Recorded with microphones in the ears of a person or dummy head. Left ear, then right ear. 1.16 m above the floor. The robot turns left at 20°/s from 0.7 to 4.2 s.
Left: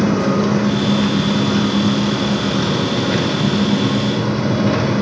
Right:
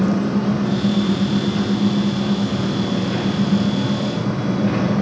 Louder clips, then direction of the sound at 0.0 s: Left 4 dB; 95° left.